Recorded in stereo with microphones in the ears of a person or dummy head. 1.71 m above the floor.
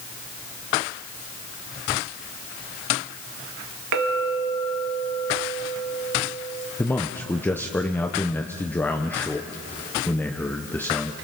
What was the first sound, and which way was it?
A clink, 70° right (ahead or behind).